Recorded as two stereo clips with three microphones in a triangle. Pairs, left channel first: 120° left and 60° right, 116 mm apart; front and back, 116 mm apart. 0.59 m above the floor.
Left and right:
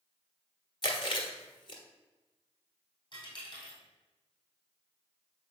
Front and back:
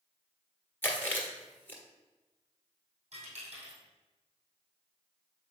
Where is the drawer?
No drawer in this recording.